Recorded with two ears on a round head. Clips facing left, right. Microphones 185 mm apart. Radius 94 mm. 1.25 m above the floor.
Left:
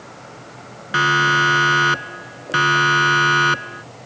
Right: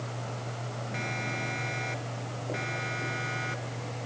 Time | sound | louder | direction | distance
0.9 | a siren | left 16 dB | 80° left | ?